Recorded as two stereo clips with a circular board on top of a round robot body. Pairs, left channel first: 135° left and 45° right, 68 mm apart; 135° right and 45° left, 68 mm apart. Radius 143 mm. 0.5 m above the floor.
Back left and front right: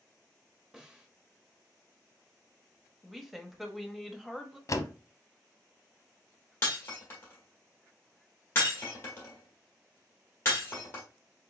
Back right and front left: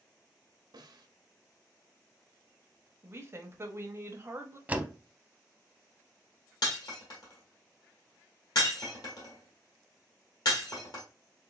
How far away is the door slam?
About 0.8 m.